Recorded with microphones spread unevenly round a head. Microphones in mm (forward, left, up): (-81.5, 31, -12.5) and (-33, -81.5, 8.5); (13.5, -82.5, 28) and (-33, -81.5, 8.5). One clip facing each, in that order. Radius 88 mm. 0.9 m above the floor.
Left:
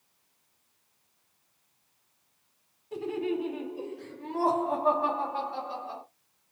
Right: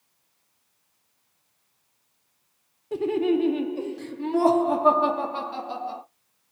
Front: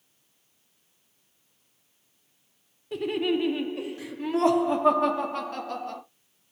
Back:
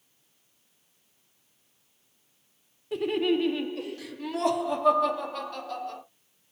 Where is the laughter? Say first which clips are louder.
Right 8 dB, back 1 dB; 95° right, 1.4 m; by 6.0 s 35° right, 1.7 m.